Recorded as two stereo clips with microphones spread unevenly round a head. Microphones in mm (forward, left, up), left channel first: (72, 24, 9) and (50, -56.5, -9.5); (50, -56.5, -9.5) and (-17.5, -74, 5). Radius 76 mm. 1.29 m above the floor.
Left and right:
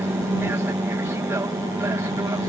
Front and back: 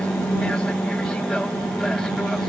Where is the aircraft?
55° right; by 2.5 s 65° right.